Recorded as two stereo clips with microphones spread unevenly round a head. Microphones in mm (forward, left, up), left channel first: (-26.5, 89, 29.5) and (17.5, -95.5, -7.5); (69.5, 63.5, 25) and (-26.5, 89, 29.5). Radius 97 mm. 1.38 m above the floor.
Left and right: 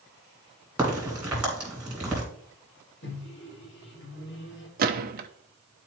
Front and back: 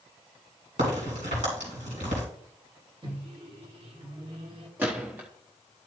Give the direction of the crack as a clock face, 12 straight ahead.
6 o'clock.